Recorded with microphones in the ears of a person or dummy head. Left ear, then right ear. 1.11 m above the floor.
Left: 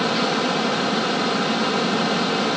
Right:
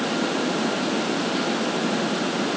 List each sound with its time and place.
Only background noise.